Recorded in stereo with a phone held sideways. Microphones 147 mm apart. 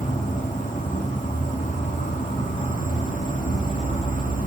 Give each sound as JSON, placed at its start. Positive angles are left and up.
{"t": 0.0, "sound": "an insect", "side_deg": 60, "distance_m": 1.7}